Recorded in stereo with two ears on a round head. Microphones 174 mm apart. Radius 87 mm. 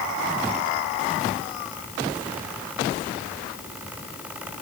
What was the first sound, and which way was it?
Only background noise.